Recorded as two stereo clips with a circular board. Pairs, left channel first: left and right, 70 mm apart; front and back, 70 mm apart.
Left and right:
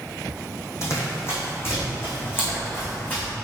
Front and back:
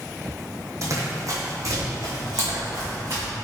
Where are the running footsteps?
140° left, 1.9 m; by 3.3 s 150° left, 3.5 m.